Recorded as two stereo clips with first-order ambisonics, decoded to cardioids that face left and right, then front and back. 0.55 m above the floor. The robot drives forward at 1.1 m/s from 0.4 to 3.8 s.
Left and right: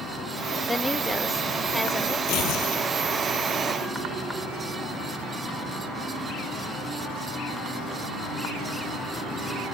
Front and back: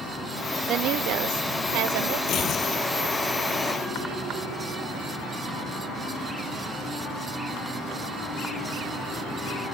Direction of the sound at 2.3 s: 50° left.